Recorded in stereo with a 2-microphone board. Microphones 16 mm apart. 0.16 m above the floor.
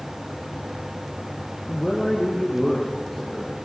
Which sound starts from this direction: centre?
A man speaking, at 1.7 s.